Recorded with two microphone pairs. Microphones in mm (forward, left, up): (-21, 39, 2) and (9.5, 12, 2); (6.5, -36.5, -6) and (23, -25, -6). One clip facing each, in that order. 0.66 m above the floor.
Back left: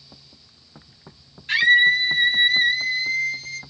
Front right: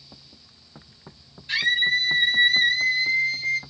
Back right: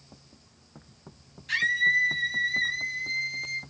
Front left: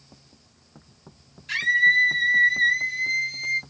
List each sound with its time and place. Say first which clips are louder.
1.5 s a scream: back left 6 dB, front left 4 dB; 130° left, 1.1 m; by 3.6 s 5° right, 0.7 m